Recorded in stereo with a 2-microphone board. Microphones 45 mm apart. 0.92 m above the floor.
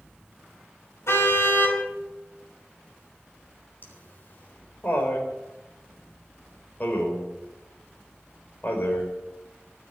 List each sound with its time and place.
1.1 s a car horn: 75° left (ahead or behind), 3 m
3.8 s laughter: 45° left (ahead or behind), 4 m